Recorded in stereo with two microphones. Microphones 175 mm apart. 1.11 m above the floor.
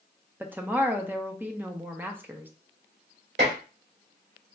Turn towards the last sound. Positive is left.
turn(degrees=-85)